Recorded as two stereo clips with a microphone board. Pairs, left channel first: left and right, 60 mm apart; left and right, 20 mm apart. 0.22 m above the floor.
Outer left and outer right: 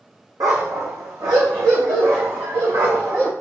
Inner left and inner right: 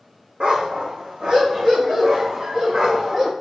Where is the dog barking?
80° right, 3 m; by 3.3 s 55° right (ahead or behind), 5.5 m.